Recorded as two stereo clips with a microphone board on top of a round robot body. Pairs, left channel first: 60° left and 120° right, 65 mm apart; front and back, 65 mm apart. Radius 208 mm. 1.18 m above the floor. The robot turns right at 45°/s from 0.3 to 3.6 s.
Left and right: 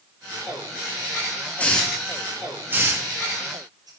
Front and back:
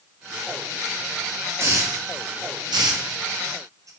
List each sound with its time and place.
1.6 s a hiss: 130° left, 1.1 m; by 3.9 s 140° right, 1.1 m